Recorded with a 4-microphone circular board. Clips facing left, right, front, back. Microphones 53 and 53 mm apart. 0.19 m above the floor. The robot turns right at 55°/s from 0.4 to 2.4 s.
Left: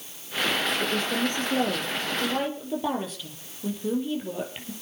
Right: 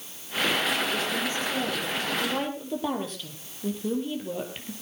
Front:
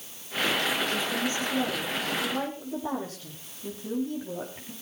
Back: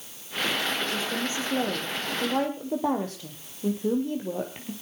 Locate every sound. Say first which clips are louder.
0.8 s a woman speaking: left 2 dB, front 1 dB; 90° left, 4.5 m; by 4.7 s straight behind, 4.5 m